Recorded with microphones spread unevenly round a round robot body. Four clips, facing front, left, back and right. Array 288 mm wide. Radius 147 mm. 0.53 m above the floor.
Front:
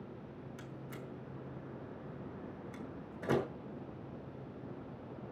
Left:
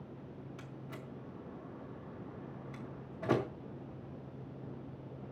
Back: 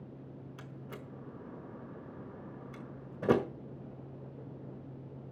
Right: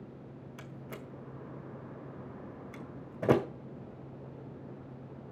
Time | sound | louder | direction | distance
0.6 | a door slam | right 2 dB, back 1 dB | 125° right | 1.4 m